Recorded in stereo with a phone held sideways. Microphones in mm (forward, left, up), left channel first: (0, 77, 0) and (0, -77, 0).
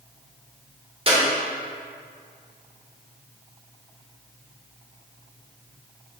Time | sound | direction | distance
1.1 | a clap | 35° right (ahead or behind) | 3 m